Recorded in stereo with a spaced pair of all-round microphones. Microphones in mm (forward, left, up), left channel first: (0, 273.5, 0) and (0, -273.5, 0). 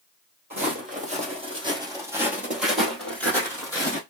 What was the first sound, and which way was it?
Footsteps, 15° right (ahead or behind).